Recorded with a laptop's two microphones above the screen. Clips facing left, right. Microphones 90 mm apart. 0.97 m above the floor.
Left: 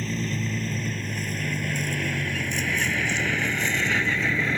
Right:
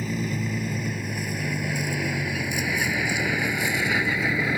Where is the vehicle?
10° right (ahead or behind).